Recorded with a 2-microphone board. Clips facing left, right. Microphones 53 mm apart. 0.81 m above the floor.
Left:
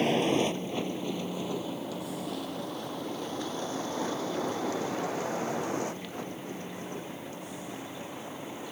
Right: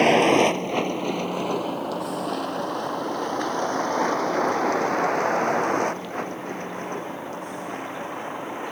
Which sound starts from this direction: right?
A vehicle, at 0.0 s.